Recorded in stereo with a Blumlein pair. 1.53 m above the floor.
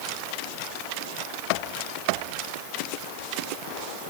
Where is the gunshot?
I don't hear a gunshot.